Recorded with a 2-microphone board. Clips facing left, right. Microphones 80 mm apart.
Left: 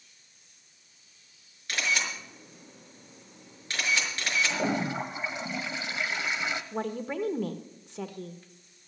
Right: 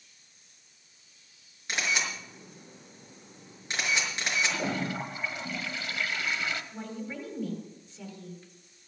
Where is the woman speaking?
65° left (ahead or behind), 1.5 m.